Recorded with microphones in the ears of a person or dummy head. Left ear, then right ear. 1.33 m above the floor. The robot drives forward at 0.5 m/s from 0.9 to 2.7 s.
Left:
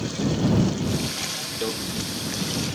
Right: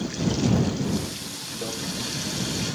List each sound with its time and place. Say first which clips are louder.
1.6 s a microwave: left 5 dB; centre (ahead or behind), 4 m